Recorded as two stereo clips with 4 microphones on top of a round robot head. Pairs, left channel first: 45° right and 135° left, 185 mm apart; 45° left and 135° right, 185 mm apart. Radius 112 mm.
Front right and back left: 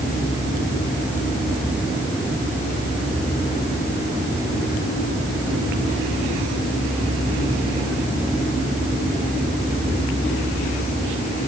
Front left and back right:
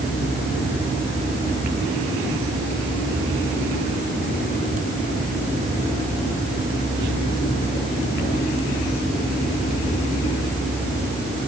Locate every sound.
Only background noise.